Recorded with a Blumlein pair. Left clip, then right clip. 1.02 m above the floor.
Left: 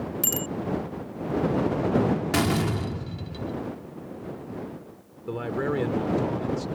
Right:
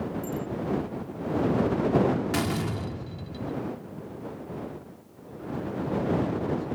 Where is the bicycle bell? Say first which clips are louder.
Left 4 dB; 50° left.